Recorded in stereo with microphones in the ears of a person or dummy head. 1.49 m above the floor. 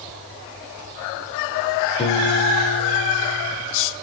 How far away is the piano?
About 2 m.